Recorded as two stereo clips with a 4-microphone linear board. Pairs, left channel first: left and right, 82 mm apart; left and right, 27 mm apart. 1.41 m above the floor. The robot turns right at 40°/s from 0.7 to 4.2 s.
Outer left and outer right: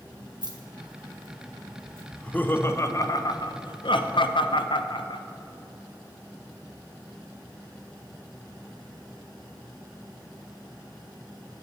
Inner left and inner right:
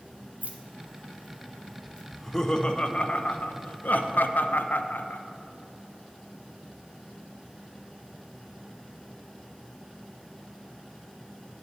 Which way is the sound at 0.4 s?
60° right (ahead or behind).